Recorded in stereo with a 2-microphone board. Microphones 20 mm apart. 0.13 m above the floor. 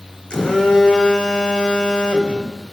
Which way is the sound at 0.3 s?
50° left (ahead or behind).